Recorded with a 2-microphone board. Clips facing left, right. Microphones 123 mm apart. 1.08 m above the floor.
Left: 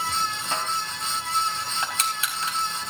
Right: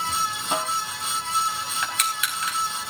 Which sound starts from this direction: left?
Crushing, at 1.8 s.